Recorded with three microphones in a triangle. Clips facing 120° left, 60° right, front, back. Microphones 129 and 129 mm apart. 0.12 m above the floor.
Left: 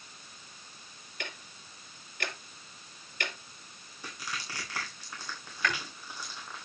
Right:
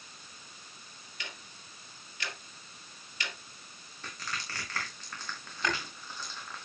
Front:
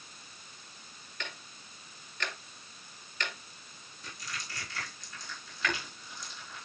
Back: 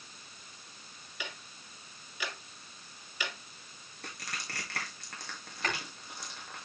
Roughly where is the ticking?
Left.